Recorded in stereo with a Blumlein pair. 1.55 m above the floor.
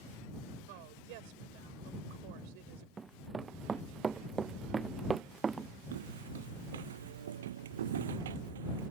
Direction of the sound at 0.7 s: 45° right.